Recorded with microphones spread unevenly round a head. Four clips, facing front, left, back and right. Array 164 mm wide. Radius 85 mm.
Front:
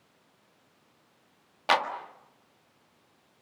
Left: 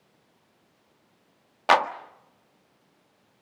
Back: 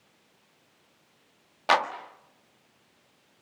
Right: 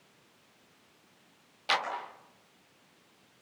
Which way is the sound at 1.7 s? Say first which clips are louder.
Left 11 dB, back 2 dB; 105° left.